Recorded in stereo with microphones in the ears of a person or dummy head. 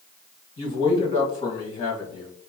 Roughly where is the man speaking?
Left.